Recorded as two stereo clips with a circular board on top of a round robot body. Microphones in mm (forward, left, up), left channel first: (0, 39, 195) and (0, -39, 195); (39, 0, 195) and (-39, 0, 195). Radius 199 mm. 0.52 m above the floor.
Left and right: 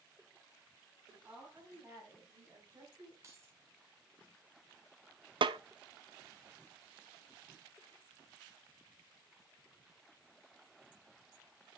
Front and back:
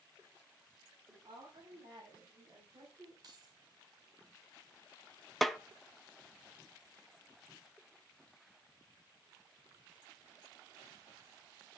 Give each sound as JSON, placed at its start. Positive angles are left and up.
{"t": 1.1, "sound": "a woman speaking", "azimuth_deg": -165, "distance_m": 5.5}
{"t": 3.2, "sound": "keys jangling", "azimuth_deg": -145, "distance_m": 4.0}
{"t": 5.4, "sound": "a snare drum", "azimuth_deg": -90, "distance_m": 0.8}